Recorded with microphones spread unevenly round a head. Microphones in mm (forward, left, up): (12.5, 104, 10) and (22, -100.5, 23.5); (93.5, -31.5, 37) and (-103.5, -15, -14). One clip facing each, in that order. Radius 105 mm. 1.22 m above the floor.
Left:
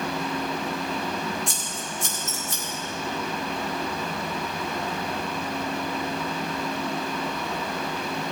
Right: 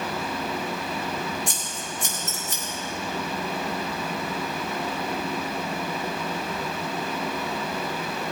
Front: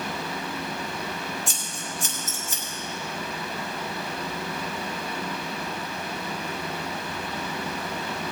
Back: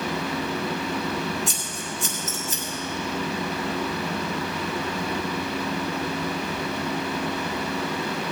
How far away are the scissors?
About 5 m.